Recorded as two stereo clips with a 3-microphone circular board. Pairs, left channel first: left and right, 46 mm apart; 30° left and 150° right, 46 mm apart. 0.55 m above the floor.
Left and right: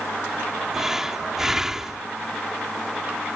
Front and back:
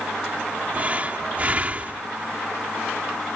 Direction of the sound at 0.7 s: 160° right.